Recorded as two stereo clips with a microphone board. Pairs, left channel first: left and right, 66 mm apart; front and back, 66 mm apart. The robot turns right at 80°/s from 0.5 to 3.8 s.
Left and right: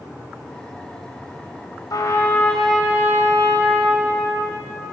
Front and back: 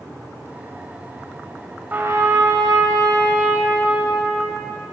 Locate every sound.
1.9 s a trumpet: 115° left, 3.5 m; by 4.6 s 90° right, 3.5 m